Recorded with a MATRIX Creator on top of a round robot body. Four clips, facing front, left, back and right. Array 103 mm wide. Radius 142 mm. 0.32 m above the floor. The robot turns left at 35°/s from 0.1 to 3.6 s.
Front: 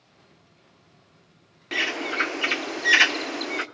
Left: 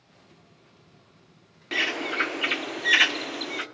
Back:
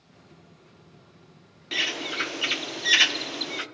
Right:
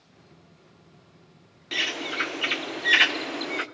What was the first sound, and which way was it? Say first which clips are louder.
A bird: left 3 dB, front 4 dB; 40° left.